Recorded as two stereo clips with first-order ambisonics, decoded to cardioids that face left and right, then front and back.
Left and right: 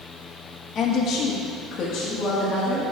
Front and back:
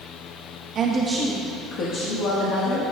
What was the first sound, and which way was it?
A woman speaking, 145° left.